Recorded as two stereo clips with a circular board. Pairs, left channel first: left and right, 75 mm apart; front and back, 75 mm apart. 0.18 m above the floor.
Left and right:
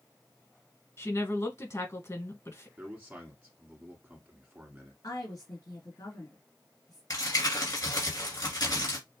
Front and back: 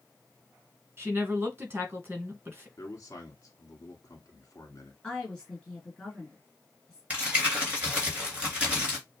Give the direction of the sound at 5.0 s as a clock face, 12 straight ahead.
9 o'clock.